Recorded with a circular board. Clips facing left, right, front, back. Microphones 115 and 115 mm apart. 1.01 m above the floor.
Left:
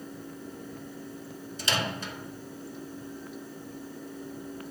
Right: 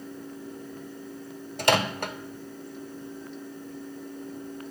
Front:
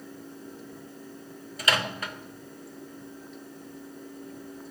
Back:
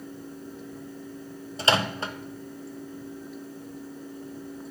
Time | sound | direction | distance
1.6 | a microwave | 120° right | 0.6 m